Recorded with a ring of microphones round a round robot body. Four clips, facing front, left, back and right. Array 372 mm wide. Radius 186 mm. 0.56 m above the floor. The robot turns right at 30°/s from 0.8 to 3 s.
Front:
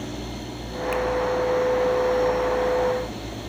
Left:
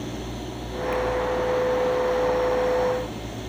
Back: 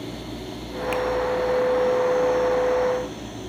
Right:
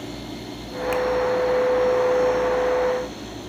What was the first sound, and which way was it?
A finger snap, 100° right.